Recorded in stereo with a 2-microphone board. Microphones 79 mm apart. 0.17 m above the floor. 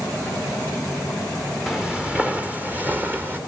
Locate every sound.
1.7 s footsteps: centre (ahead or behind), 1.1 m; by 3.4 s 25° right (ahead or behind), 2.5 m